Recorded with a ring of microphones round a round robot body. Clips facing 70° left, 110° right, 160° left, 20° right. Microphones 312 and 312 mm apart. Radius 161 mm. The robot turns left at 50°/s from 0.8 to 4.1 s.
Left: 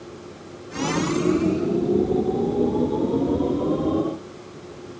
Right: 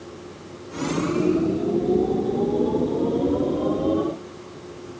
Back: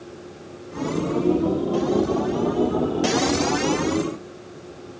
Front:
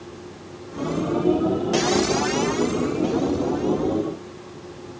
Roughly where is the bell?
I don't hear a bell.